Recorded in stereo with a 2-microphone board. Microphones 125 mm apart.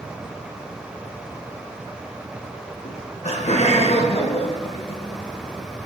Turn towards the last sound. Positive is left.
turn(degrees=55)  # may be behind; listen again after turning